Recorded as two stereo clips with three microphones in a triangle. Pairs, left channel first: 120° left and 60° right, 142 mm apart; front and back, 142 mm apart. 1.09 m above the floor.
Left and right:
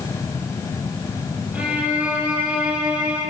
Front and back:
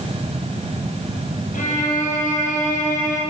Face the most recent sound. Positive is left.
turn(degrees=20)